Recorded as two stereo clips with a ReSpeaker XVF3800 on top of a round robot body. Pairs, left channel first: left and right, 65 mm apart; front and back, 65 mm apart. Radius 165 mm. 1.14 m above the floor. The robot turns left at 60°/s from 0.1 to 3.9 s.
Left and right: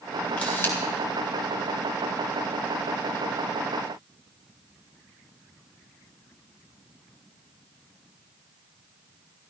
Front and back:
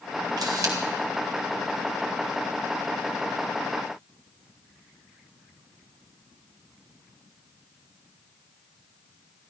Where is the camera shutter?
160° left, 3 m; by 0.7 s 140° left, 3 m.